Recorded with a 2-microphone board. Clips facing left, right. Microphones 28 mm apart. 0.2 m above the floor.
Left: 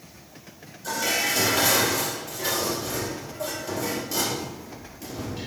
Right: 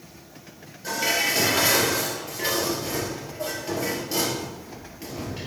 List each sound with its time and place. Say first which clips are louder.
0.8 s dishes clattering: right 1 dB; 35° right (ahead or behind), 2.5 m